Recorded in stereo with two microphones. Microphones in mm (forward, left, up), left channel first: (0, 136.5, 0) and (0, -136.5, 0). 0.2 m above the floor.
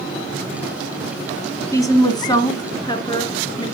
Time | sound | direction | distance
1.7 | a woman speaking | 10° left (ahead or behind) | 1.5 m